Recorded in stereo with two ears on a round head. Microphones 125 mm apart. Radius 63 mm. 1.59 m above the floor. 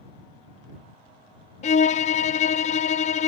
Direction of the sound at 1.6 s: 55° left (ahead or behind).